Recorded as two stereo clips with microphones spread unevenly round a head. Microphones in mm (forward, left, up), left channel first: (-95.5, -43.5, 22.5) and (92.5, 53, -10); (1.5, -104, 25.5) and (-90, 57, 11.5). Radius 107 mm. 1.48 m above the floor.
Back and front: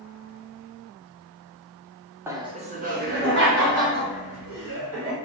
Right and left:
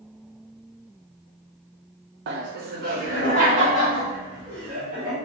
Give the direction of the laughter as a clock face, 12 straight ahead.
9 o'clock.